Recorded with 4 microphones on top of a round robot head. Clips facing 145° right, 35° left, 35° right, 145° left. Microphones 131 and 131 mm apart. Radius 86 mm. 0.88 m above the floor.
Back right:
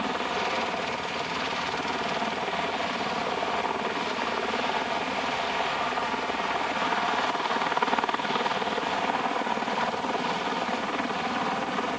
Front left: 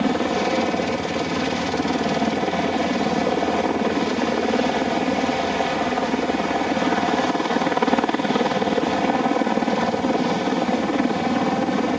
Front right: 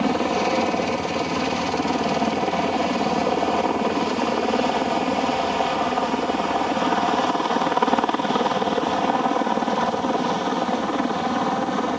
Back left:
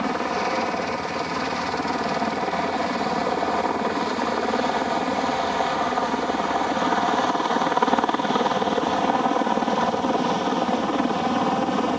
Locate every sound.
0.0 s a helicopter: 25° left; by 12.0 s 60° left